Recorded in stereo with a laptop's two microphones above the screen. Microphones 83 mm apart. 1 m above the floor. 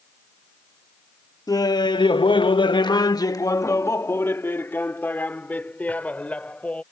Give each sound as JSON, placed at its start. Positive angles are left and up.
{"t": 1.5, "sound": "laughter", "side_deg": 45}